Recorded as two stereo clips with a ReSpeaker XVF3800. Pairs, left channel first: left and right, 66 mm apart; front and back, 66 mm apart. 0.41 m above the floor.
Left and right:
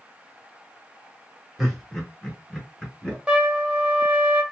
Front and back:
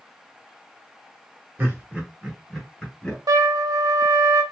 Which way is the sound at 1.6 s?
Straight behind.